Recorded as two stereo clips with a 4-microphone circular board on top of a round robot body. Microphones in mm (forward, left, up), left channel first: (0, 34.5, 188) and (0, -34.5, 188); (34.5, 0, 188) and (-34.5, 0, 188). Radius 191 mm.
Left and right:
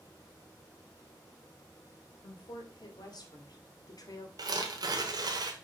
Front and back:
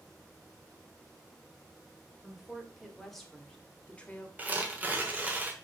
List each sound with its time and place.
2.2 s a woman speaking: 95° left, 2.5 m; by 4.3 s 65° left, 1.5 m
4.4 s tearing paper: 115° right, 1.3 m